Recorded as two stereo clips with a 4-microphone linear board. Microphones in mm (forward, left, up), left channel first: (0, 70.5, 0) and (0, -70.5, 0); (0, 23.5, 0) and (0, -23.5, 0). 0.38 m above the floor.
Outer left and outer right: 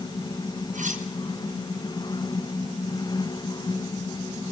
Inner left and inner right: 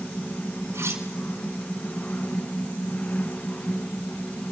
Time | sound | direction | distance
0.7 | cutlery clinking | 70° right (ahead or behind) | 3 m